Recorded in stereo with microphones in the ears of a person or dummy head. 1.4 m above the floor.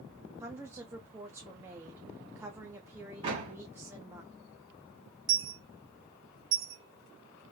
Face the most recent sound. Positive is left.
turn(degrees=-55)  # may be behind; listen again after turning